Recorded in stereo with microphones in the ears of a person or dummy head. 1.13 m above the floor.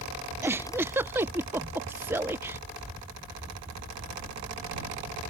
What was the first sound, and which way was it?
A giggle, 15° right (ahead or behind).